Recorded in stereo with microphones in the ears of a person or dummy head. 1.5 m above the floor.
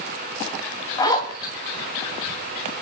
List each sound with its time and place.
1.0 s a zipper: 25° left (ahead or behind), 3 m